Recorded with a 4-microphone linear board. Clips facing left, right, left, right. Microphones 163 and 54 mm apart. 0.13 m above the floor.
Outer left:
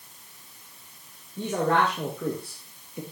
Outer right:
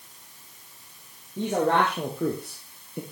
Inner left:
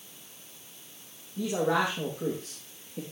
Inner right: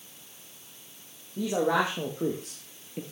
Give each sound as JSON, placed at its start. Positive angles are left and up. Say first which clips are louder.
{"t": 1.4, "sound": "a man speaking", "louder": "outer right 1 dB, inner right 1 dB", "side_deg": -65, "distance_m": 4.0}